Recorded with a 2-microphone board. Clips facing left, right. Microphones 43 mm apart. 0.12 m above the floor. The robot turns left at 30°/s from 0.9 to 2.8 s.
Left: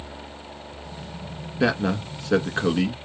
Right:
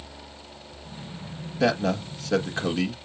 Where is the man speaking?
20° left (ahead or behind), 1.2 m.